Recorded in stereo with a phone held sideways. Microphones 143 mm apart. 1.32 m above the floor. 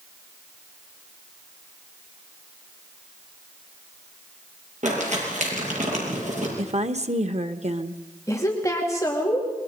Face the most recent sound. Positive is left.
turn(degrees=20)  # may be behind; listen again after turning